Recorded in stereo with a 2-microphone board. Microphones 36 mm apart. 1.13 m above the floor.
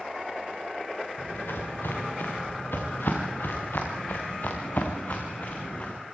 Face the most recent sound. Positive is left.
turn(degrees=45)  # may be behind; listen again after turning